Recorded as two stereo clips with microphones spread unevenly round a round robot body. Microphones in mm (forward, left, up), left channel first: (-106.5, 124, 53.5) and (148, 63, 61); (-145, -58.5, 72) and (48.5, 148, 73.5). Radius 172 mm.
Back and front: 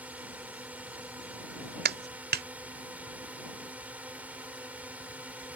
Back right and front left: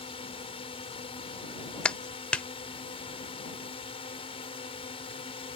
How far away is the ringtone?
No ringtone in this recording.